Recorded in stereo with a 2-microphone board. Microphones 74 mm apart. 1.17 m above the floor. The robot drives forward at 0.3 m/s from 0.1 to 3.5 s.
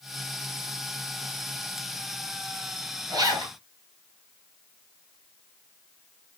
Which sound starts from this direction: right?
A zipper, at 3.1 s.